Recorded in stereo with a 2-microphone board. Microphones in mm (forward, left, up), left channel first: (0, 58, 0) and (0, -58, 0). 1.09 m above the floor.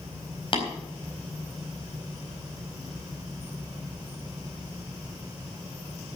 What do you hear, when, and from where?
0.5 s tapping: 50° left (ahead or behind), 4 m